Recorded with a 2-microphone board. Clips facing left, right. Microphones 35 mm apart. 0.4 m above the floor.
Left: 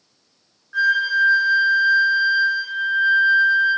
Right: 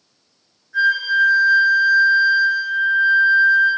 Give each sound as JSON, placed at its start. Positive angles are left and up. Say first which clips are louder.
{"t": 0.7, "sound": "a flute", "louder": "right 1 dB", "side_deg": 65, "distance_m": 5.0}